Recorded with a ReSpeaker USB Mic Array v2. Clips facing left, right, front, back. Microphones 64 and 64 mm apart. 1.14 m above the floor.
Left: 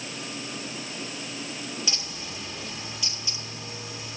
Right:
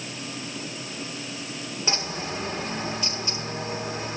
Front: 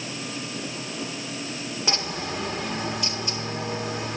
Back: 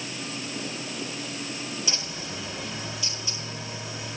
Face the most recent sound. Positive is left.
turn(degrees=-40)